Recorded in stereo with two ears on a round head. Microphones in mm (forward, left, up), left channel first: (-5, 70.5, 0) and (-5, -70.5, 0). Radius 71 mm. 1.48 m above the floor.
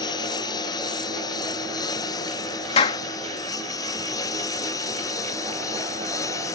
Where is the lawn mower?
25° left (ahead or behind); by 6.6 s 20° left (ahead or behind).